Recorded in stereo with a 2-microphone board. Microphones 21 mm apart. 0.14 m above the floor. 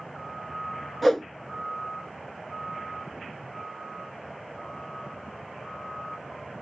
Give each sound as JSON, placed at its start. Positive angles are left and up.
{"t": 1.0, "sound": "a whoosh", "side_deg": 5, "distance_m": 0.6}